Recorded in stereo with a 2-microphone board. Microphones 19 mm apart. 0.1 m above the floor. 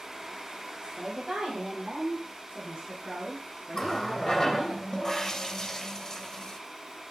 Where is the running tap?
25° left (ahead or behind), 3 m.